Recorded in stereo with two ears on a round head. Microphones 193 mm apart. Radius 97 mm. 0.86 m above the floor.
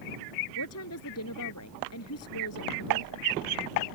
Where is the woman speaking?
85° left.